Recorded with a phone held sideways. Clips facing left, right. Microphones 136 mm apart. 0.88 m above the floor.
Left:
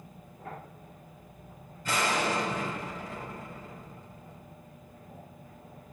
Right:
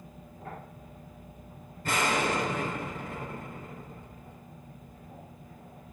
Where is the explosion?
60° right (ahead or behind), 3.5 m.